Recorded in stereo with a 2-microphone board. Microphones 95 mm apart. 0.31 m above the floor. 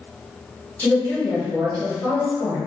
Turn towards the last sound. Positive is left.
turn(degrees=15)  # may be behind; listen again after turning